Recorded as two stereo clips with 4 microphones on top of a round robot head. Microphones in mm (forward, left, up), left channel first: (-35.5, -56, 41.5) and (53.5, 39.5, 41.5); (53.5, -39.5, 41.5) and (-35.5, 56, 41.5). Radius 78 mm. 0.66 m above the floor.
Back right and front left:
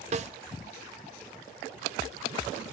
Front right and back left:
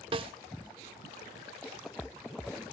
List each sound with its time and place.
0.1 s a snare drum: 85° left, 1.1 m